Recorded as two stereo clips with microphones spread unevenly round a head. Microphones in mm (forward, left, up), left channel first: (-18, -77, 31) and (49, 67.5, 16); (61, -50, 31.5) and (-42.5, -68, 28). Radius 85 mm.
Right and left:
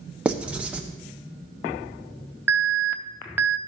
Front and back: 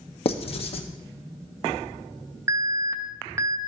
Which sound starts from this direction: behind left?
An alarm, at 2.5 s.